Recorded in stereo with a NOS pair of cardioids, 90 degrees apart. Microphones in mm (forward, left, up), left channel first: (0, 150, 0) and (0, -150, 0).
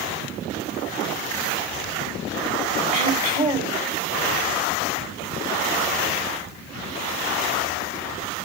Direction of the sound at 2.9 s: 25° right.